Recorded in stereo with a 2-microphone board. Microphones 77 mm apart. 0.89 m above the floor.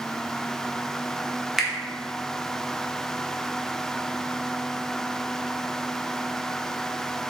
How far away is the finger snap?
About 0.7 m.